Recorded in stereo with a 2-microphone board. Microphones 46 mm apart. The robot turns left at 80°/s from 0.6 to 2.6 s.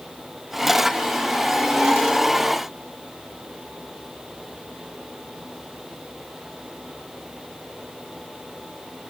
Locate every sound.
Only background noise.